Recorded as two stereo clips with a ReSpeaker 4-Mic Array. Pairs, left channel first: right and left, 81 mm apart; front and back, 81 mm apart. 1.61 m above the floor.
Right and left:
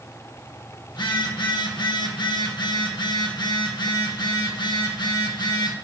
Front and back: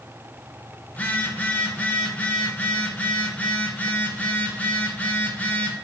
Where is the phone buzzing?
70° right, 0.7 m.